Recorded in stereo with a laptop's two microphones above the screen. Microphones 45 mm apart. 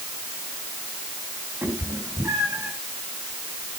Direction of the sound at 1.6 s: 65° right (ahead or behind).